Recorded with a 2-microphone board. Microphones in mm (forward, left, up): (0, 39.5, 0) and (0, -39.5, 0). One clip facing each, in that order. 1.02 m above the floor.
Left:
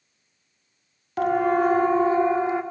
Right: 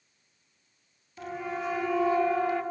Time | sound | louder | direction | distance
1.2 | a siren | left 14 dB | 70° left (ahead or behind) | 2 m